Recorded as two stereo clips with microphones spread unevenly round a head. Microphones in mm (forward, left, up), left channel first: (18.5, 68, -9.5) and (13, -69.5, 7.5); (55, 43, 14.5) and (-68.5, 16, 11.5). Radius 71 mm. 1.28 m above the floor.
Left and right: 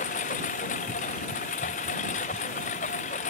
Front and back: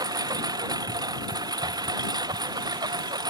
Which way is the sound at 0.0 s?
130° left.